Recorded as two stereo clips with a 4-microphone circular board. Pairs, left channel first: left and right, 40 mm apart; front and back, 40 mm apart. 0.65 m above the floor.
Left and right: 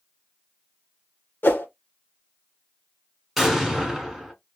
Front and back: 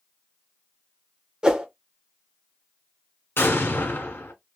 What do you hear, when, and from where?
1.4 s a whoosh: 110° left, 0.9 m
3.4 s an explosion: straight ahead, 1.6 m